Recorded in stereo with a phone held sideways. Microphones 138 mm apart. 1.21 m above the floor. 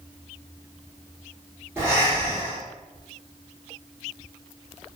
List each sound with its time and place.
1.8 s breathing: 20° right (ahead or behind), 1.3 m